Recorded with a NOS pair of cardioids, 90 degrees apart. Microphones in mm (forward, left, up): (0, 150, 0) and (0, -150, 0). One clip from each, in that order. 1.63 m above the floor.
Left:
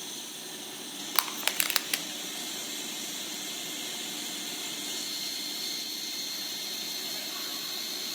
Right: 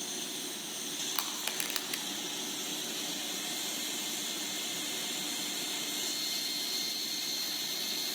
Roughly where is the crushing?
Ahead left.